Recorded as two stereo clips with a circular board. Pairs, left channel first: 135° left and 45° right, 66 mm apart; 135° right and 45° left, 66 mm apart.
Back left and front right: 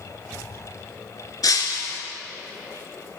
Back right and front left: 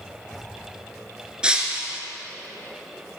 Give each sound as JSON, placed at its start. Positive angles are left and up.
{"t": 1.4, "sound": "breaking glass", "azimuth_deg": 120, "distance_m": 1.5}